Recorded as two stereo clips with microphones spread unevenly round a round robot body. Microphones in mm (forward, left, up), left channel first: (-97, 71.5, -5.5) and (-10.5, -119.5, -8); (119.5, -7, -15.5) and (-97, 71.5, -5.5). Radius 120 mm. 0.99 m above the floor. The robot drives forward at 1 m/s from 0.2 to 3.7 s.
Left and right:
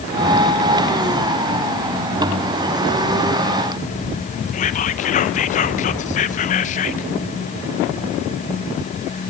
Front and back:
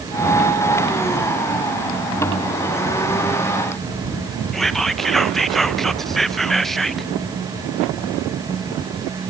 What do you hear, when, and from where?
4.5 s whispering: 65° left, 0.7 m